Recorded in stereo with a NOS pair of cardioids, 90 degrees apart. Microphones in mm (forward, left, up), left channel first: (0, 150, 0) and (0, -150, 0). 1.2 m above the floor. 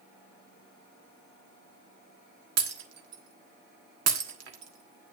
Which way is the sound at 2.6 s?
60° right.